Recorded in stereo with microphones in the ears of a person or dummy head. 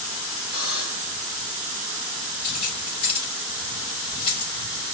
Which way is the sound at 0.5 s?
35° left (ahead or behind).